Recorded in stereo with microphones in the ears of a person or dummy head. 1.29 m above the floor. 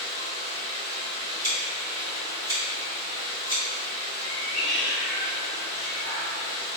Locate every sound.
0.0 s running water: 35° right (ahead or behind), 1.7 m
1.4 s scissors: 25° right (ahead or behind), 1.7 m
4.2 s a cat meowing: 20° left (ahead or behind), 1.4 m